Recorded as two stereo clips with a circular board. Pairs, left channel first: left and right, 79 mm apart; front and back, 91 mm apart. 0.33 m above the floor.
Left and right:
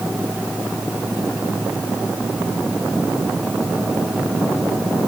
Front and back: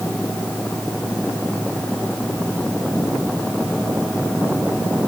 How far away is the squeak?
I don't hear a squeak.